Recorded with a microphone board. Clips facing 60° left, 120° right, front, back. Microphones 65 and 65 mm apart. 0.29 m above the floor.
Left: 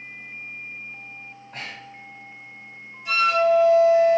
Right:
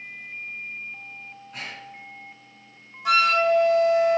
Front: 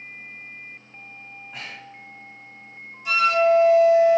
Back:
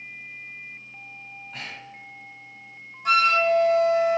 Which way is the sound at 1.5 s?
70° left.